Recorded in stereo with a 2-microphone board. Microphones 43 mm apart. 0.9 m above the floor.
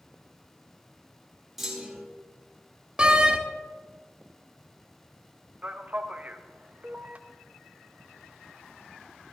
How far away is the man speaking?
About 0.9 m.